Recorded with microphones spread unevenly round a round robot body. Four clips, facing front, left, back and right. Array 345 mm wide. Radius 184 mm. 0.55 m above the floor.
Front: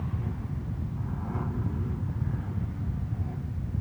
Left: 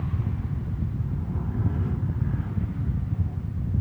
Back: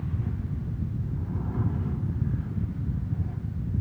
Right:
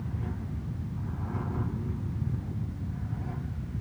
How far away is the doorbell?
I don't hear a doorbell.